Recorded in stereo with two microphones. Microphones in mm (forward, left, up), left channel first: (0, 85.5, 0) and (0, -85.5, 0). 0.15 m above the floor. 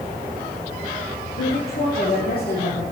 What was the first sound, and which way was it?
A woman speaking, 70° left (ahead or behind).